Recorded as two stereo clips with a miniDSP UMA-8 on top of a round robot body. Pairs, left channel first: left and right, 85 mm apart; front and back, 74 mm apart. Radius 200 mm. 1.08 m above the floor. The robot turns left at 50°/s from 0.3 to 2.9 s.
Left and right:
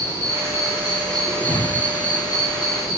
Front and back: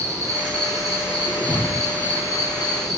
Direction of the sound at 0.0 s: 135° right.